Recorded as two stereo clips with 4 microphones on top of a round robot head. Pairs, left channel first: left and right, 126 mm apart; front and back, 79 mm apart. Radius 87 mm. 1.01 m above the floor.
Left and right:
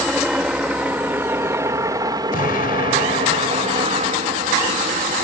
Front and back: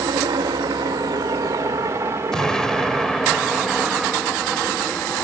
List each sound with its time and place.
0.0 s a helicopter: 175° right; by 5.2 s 80° right
2.3 s an explosion: 80° left